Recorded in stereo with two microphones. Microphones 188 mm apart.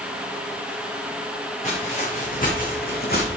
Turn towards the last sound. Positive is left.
turn(degrees=55)  # may be behind; listen again after turning